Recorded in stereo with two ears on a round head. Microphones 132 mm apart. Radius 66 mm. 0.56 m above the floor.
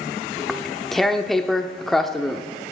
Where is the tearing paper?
Centre (ahead or behind), 0.8 m.